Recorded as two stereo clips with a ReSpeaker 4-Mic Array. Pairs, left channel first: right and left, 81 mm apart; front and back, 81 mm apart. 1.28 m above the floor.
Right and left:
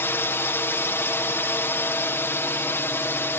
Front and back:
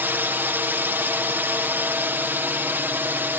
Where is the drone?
130° right.